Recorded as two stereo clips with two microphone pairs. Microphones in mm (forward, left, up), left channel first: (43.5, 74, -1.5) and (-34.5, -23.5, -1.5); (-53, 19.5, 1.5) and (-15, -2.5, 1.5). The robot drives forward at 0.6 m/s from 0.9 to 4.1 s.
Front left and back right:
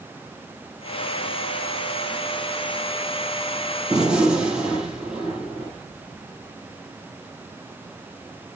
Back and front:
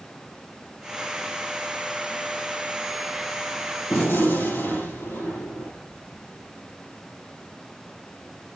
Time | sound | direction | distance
3.9 | a gunshot | 150° left | 4 m